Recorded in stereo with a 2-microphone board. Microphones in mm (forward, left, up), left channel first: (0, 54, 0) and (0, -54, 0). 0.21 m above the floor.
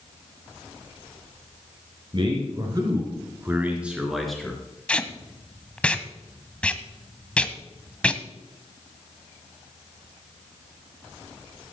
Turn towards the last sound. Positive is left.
turn(degrees=10)  # may be behind; listen again after turning